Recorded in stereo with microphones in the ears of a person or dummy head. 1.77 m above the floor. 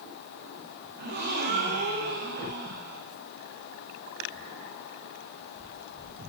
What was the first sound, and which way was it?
A gasp, 50° right (ahead or behind).